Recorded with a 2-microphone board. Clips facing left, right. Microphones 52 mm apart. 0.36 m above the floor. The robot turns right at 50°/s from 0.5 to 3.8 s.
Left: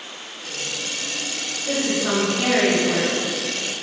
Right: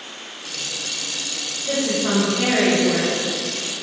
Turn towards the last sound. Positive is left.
turn(degrees=-95)